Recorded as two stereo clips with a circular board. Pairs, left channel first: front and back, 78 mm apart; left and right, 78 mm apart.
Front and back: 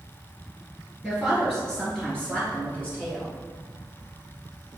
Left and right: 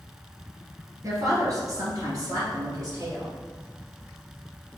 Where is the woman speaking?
90° right, 1.9 m; by 3.3 s 65° right, 2.5 m.